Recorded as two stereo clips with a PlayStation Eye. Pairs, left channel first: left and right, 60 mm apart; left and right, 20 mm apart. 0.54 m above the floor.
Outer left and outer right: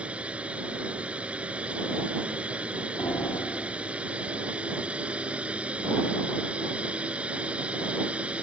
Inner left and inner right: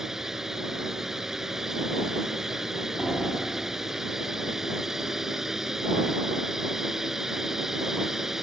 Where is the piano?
75° left (ahead or behind).